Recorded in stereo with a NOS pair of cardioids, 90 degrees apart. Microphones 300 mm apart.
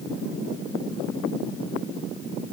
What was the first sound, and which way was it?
Only background noise.